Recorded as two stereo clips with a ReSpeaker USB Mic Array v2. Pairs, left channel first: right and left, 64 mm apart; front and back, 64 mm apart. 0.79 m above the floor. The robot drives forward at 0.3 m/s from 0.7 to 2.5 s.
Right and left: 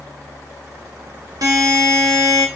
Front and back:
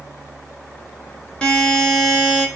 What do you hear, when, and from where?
1.4 s a buzzer: 70° left, 0.6 m; by 2.5 s 105° left, 0.6 m